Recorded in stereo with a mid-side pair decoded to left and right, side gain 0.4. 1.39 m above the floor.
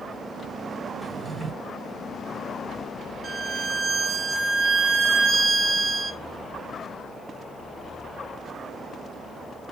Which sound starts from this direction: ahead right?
A violin, at 3.2 s.